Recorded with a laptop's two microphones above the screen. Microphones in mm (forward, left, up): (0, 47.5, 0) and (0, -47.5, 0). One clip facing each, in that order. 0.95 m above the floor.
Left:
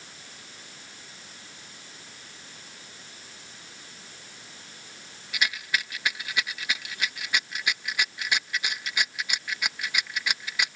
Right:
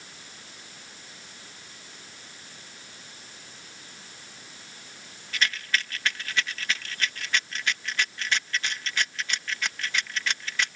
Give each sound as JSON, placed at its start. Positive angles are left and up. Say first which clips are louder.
{"t": 5.3, "sound": "a rattle", "louder": "right 1 dB", "side_deg": 10}